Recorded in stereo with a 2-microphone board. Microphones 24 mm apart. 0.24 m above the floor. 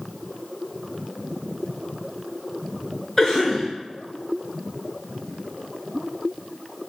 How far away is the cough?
About 1.1 m.